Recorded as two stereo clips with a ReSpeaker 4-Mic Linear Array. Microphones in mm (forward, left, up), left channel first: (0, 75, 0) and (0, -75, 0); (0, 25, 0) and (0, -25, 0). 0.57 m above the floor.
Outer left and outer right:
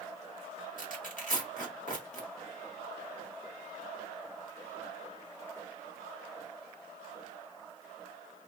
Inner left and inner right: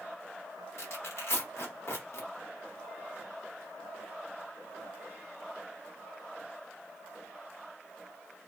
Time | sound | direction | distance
0.8 | tearing paper | 60° left (ahead or behind) | 0.8 m